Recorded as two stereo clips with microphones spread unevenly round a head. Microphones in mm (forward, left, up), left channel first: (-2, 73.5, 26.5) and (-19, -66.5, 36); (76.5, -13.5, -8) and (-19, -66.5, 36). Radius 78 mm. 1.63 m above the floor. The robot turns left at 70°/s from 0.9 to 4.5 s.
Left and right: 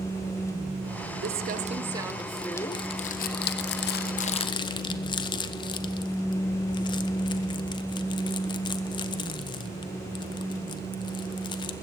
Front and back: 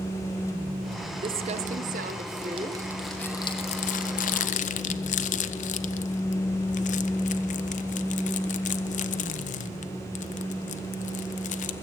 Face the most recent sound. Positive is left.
turn(degrees=20)